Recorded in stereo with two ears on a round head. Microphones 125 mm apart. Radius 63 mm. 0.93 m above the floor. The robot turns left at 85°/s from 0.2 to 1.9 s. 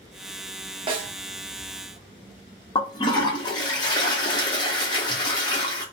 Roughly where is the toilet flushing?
Left.